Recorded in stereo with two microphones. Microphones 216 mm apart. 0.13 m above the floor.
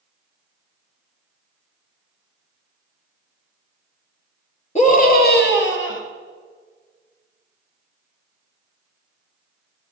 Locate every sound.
4.8 s a scream: 35° left (ahead or behind), 2.5 m; by 6.0 s 65° left (ahead or behind), 2.5 m